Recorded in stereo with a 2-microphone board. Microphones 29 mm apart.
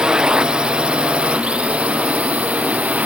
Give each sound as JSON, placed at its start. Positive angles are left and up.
{"t": 0.0, "sound": "a drone", "side_deg": -30}